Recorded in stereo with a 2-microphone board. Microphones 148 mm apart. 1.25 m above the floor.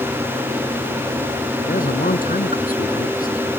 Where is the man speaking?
70° left (ahead or behind).